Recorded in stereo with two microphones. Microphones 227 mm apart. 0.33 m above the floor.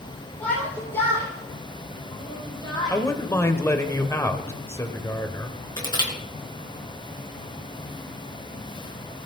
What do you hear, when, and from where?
0.4 s a shout: 5° left (ahead or behind), 10 m; by 3.0 s 20° left (ahead or behind), 8 m
2.9 s a man speaking: 10° left (ahead or behind), 1.4 m
5.8 s crushing: 20° left (ahead or behind), 4.5 m